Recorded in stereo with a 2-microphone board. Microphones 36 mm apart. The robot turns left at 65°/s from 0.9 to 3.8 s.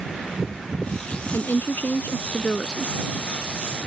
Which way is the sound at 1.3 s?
110° left.